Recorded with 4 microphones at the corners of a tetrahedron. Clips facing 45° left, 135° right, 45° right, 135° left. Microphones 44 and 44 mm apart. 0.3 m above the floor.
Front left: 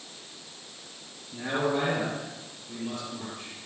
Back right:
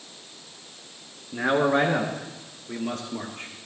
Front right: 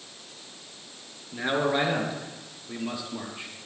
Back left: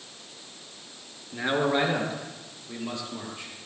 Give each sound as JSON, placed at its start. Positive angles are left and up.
{"t": 1.3, "sound": "a man speaking", "azimuth_deg": -140, "distance_m": 3.5}